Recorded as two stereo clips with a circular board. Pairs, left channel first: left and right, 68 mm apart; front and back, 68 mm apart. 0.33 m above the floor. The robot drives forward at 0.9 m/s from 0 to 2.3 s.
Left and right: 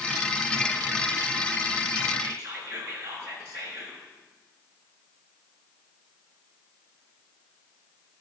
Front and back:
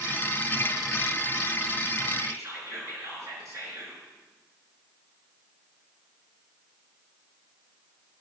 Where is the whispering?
135° right, 5.5 m.